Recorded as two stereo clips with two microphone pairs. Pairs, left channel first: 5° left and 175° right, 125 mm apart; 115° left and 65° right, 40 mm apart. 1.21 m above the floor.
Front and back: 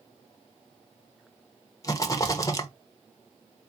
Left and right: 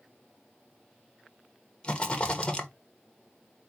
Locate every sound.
1.8 s a rattle: 60° left, 0.7 m